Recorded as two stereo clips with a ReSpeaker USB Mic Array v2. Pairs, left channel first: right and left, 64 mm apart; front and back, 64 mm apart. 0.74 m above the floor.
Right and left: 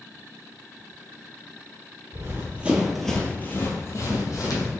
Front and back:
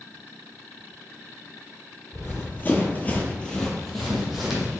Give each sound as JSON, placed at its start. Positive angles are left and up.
{"t": 2.1, "sound": "running footsteps", "azimuth_deg": 50, "distance_m": 1.1}